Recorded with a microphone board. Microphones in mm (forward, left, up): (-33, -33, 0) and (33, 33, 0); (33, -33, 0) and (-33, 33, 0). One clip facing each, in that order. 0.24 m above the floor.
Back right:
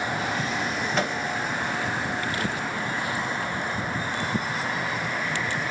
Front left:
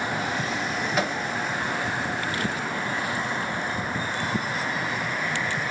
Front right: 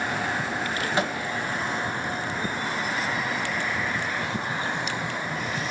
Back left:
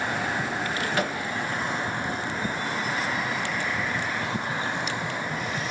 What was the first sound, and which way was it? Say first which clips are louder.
A microwave: front left 1 dB, front right 2 dB; 35° right.